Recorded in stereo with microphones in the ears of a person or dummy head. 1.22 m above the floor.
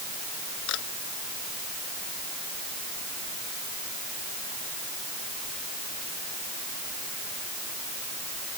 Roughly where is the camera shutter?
Left.